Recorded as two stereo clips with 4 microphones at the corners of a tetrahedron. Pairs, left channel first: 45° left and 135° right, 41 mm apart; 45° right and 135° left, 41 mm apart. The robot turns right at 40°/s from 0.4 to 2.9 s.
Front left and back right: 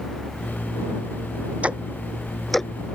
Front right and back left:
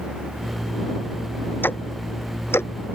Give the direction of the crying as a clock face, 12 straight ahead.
I don't hear crying.